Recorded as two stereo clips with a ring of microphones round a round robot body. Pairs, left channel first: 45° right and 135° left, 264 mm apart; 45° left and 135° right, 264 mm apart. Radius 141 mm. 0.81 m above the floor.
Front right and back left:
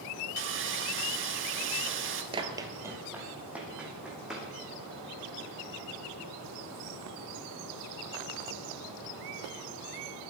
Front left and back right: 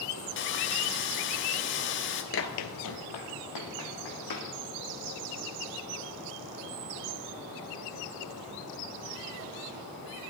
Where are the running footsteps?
70° left, 1.0 m; by 4.5 s 45° left, 4 m.